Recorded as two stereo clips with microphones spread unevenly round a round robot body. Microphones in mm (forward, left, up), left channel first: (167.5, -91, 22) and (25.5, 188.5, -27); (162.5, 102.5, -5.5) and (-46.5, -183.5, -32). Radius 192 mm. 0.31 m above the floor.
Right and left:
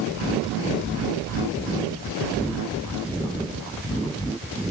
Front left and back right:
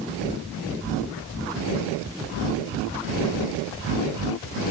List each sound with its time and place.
Only background noise.